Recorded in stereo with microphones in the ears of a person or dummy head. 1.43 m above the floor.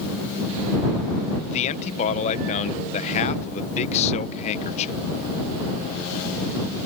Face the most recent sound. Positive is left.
turn(degrees=40)  # may be behind; listen again after turning